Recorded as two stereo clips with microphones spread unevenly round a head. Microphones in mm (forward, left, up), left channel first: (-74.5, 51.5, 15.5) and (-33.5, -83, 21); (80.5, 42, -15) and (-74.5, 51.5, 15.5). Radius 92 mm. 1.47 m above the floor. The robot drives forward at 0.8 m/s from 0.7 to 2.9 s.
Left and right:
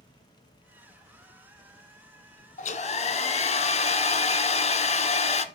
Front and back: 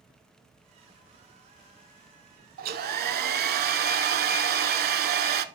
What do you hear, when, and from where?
2.6 s a hair dryer: 140° left, 1.0 m; by 5.5 s 150° left, 1.2 m